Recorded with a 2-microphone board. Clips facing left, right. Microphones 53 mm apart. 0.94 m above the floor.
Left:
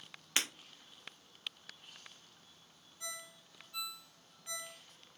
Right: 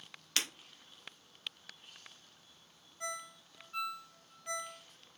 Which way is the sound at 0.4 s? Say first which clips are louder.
Left 1 dB; 25° left (ahead or behind).